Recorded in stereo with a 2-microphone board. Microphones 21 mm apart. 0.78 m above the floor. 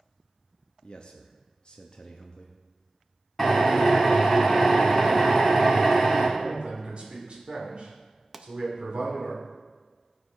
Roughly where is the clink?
No clink in this recording.